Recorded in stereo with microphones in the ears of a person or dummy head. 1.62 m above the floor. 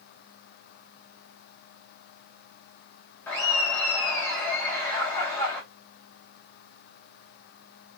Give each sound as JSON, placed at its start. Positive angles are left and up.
{"t": 3.3, "sound": "laughter", "side_deg": 15, "distance_m": 0.8}